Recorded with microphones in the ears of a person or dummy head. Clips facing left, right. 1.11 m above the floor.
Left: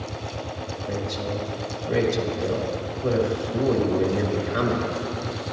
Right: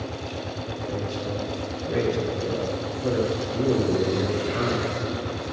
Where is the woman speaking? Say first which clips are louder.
Left 2 dB; 55° left (ahead or behind), 2 m.